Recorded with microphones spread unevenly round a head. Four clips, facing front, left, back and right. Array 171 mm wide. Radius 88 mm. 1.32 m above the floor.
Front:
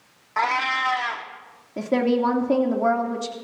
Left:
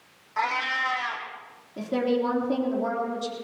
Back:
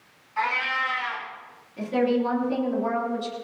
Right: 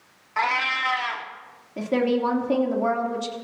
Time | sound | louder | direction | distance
0.4 | a cat meowing | right 2 dB, front 4 dB | 10° right | 1.5 m
1.8 | a woman speaking | right 3 dB, front 2 dB | 20° right | 3 m